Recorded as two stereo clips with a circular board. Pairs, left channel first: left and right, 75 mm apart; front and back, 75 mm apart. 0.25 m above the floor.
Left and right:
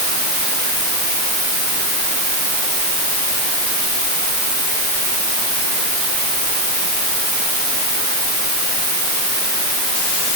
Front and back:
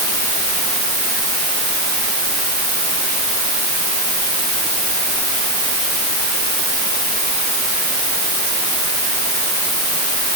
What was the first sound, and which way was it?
Only background noise.